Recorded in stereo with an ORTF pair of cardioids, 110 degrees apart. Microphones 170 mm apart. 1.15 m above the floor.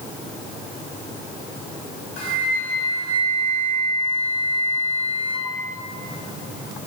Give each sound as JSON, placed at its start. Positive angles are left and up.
{"t": 2.2, "sound": "a flute", "azimuth_deg": 60, "distance_m": 2.5}